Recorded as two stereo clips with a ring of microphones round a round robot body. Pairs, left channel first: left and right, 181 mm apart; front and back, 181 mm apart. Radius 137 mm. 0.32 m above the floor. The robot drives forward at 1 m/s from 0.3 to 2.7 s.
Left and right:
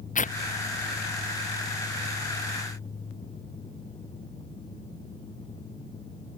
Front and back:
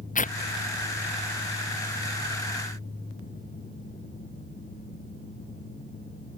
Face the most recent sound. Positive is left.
turn(degrees=60)